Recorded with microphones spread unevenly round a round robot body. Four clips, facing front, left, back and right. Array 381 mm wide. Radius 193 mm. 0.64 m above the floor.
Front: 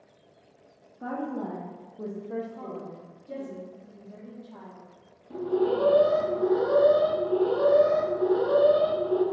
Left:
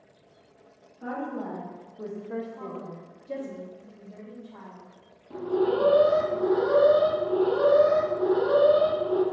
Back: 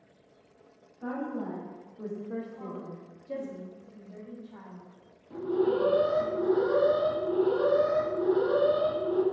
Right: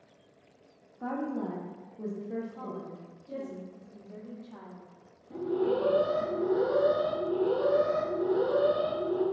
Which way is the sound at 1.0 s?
35° right.